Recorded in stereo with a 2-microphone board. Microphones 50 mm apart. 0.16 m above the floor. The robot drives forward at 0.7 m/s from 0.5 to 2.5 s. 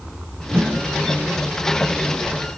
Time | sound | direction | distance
0.5 | a whoosh | 45° right (ahead or behind) | 1.1 m